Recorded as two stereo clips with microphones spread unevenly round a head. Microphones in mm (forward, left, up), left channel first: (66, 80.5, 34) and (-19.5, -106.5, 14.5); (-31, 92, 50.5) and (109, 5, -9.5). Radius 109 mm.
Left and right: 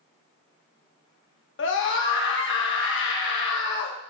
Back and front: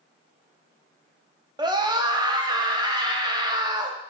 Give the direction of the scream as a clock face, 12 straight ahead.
11 o'clock.